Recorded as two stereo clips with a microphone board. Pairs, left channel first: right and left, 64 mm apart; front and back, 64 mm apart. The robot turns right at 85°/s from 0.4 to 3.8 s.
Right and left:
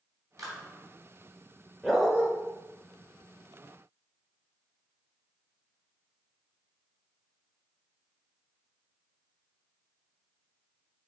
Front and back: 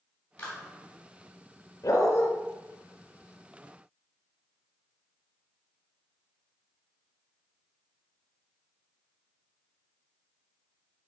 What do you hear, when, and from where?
0.4 s a clap: 65° left, 2.5 m; by 0.6 s 85° left, 2.5 m
1.8 s a dog barking: 10° right, 1.6 m; by 2.3 s 30° left, 1.6 m